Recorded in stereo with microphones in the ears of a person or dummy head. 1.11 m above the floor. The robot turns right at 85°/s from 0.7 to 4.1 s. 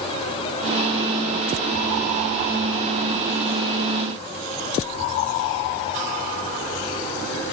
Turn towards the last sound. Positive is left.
No sound to turn to.